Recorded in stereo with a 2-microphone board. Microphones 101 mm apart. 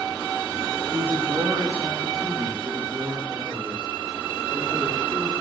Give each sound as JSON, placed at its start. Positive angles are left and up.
{"t": 0.9, "sound": "a man speaking", "side_deg": -20, "distance_m": 0.6}